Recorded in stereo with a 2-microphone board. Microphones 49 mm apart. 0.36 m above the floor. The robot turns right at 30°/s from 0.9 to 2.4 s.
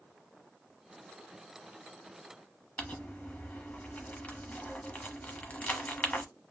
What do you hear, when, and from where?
2.8 s crumpling: 30° left (ahead or behind), 0.8 m